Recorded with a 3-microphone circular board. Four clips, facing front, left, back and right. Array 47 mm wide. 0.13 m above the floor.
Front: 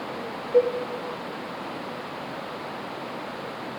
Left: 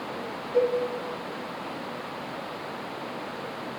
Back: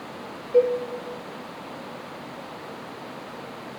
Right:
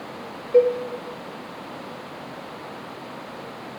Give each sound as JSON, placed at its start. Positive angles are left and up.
{"t": 0.5, "sound": "a cowbell", "azimuth_deg": -85, "distance_m": 1.4}